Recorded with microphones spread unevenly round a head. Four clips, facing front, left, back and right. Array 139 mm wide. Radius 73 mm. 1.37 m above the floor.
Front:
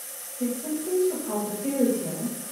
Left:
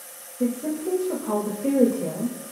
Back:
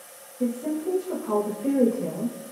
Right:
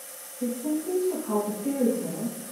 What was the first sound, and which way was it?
A woman speaking, 100° left.